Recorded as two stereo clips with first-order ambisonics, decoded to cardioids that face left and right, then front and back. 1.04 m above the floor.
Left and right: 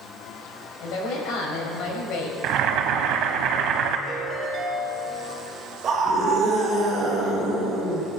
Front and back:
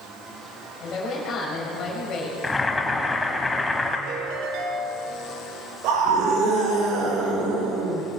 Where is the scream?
150° right, 4 m.